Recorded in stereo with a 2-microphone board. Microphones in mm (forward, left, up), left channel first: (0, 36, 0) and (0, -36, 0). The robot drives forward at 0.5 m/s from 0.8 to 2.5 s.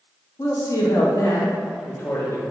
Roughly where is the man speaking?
Left.